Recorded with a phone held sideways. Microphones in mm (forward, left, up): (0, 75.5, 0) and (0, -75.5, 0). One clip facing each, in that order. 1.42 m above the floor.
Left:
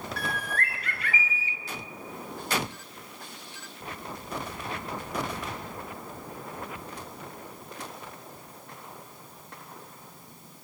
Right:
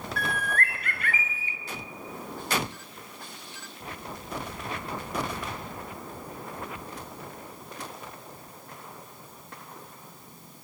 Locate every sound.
0.2 s a bird: 50° right (ahead or behind), 0.9 m